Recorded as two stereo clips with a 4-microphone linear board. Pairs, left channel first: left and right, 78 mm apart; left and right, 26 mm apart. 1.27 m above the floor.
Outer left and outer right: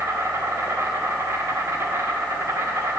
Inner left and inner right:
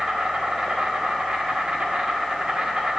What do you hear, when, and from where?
0.0 s an insect: 45° right (ahead or behind), 1.0 m